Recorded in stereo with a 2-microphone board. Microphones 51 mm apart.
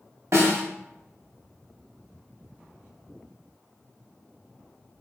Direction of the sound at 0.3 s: 70° right (ahead or behind).